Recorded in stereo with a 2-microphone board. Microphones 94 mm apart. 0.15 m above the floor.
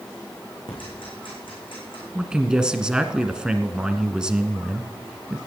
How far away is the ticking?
About 7 m.